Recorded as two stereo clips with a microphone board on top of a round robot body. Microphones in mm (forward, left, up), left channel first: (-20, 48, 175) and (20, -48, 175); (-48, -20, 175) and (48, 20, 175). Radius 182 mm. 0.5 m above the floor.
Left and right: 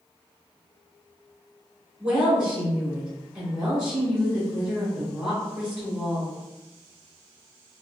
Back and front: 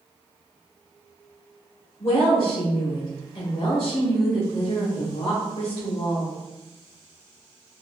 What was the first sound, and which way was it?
A woman speaking, 145° right.